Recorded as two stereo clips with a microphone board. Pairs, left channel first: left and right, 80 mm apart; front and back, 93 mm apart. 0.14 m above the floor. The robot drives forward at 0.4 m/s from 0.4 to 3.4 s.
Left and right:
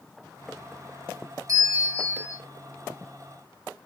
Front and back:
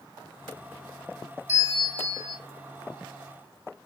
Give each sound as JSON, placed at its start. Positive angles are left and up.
{"t": 1.5, "sound": "a bell", "azimuth_deg": -130, "distance_m": 0.7}